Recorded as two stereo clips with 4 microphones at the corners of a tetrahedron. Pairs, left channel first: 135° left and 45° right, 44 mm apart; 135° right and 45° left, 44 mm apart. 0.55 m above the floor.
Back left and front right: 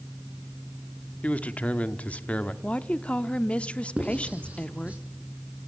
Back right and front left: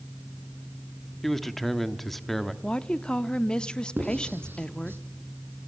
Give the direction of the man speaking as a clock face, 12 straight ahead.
7 o'clock.